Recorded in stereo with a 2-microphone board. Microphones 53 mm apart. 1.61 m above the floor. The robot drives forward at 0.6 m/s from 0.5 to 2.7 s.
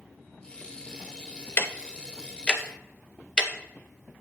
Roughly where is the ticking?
Left.